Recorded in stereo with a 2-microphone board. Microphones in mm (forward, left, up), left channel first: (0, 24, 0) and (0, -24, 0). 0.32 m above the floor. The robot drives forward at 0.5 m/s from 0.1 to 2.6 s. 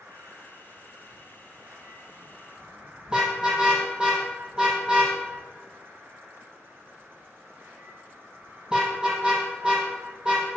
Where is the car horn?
15° right (ahead or behind), 5.5 m.